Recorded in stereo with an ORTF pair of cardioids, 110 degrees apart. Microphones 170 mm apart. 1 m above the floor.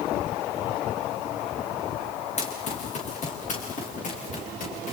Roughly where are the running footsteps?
Ahead left.